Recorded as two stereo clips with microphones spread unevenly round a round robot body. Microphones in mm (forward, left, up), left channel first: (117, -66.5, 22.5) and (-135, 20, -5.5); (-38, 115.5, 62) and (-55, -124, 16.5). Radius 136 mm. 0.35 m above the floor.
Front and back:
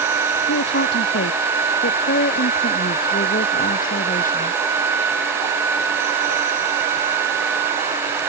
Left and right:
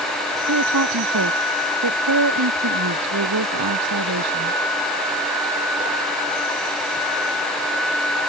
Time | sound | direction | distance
0.5 | a woman speaking | 70° right | ?